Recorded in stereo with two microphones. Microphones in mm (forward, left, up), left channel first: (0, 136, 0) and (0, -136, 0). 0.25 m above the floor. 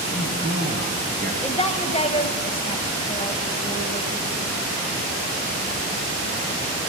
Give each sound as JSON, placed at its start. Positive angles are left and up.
{"t": 0.1, "sound": "a man speaking", "side_deg": -35, "distance_m": 1.6}
{"t": 1.4, "sound": "a woman speaking", "side_deg": 20, "distance_m": 1.0}